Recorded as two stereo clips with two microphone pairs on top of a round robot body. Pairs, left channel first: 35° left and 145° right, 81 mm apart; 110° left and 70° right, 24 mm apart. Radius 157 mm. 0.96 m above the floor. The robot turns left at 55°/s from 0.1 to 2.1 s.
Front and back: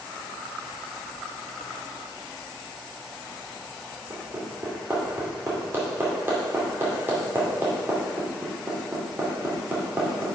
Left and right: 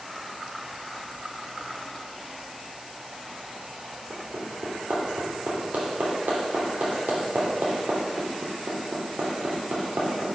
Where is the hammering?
80° right, 2.5 m.